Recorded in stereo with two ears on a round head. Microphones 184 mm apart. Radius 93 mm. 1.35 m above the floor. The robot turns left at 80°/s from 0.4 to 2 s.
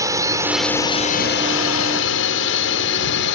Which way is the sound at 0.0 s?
15° right (ahead or behind).